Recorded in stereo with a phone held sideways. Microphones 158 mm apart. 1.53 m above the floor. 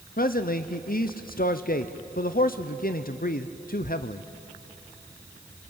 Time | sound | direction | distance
0.2 | a man speaking | 65° left (ahead or behind) | 0.7 m